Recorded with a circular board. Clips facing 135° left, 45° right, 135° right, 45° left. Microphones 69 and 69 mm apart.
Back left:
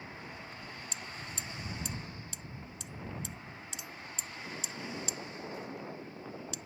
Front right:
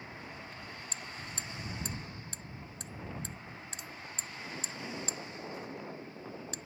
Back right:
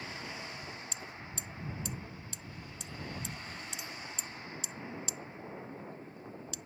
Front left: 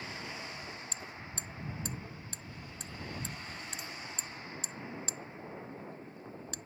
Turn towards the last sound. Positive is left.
turn(degrees=0)